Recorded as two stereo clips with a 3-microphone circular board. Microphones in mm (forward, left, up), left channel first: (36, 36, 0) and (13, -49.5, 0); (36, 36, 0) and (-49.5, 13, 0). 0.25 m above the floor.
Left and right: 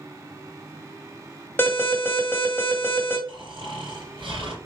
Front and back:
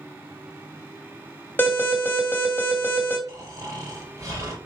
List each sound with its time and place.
1.6 s an alarm: 40° left, 2 m
3.3 s snoring: 115° right, 3 m